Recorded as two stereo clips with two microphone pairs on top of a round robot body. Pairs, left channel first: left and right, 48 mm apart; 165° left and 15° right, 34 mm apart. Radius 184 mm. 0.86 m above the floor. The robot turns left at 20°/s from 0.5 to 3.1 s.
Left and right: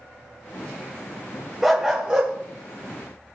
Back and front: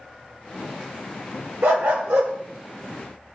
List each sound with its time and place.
1.6 s a dog barking: 5° right, 0.9 m; by 2.3 s 20° right, 0.9 m